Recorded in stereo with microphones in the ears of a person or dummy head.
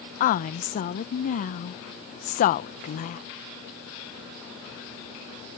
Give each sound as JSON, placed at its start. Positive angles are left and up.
{"t": 0.2, "sound": "a woman speaking", "side_deg": 45}